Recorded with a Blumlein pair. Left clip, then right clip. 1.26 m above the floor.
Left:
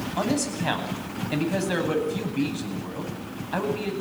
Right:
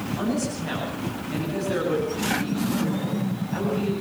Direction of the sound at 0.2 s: 30° left.